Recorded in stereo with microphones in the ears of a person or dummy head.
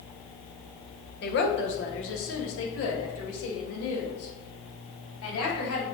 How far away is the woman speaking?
About 1.1 m.